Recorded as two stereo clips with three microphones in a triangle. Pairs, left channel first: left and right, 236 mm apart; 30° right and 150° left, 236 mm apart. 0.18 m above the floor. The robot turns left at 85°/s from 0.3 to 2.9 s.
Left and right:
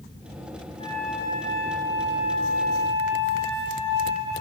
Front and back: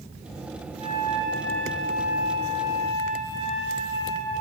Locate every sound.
0.8 s a flute: 25° left, 1.3 m; by 4.3 s 155° right, 1.3 m